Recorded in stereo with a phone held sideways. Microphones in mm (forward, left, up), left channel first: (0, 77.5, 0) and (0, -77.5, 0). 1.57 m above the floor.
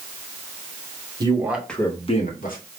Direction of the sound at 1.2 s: 25° right (ahead or behind).